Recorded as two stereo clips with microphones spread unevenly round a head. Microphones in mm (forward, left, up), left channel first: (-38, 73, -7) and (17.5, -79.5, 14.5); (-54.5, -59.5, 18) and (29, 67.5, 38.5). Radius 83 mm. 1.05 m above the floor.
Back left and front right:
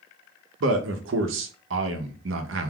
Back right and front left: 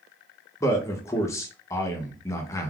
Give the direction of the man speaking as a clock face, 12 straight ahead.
2 o'clock.